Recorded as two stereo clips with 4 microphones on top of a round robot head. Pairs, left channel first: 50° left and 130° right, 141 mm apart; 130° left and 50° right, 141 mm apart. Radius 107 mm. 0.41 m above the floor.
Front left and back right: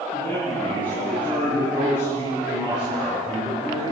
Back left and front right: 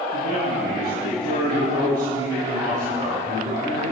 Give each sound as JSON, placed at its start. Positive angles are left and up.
{"t": 0.1, "sound": "a man speaking", "azimuth_deg": -35, "distance_m": 10.0}